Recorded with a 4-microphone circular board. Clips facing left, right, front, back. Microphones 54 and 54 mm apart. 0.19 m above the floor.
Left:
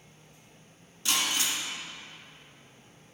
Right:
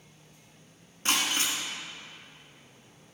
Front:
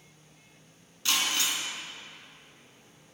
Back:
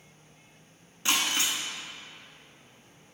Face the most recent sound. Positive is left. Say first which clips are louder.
# right 1 dB, back 1 dB
turn(degrees=-120)